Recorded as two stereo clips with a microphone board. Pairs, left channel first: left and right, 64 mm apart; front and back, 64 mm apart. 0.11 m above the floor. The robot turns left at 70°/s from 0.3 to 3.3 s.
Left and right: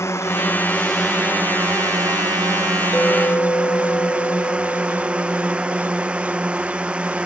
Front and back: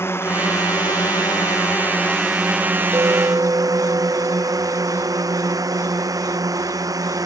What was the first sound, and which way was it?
A drone, 50° left.